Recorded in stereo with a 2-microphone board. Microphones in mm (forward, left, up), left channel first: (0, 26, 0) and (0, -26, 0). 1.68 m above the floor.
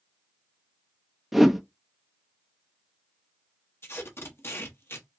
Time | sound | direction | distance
1.3 | a whoosh | centre (ahead or behind) | 0.7 m
3.8 | tape being pulled | 55° left (ahead or behind) | 1.0 m